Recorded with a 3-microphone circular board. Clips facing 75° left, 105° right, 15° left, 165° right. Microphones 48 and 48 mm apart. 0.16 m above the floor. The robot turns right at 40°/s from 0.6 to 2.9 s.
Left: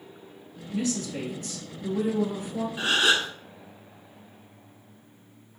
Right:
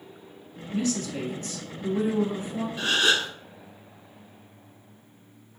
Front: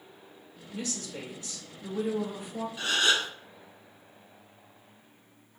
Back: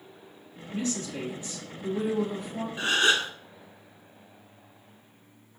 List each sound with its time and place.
0.7 s a woman speaking: 135° right, 1.5 m; by 2.7 s 60° right, 1.5 m
2.8 s a gasp: 140° left, 0.6 m; by 3.3 s 150° left, 0.6 m